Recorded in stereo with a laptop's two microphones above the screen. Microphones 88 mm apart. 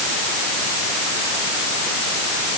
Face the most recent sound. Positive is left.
No sound to turn to.